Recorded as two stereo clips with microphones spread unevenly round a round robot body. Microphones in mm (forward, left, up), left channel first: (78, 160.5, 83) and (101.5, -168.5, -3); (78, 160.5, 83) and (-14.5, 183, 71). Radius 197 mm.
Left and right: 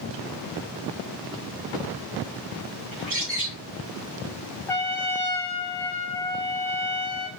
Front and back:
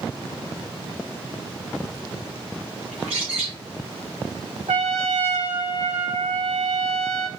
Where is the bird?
150° right, 3 m.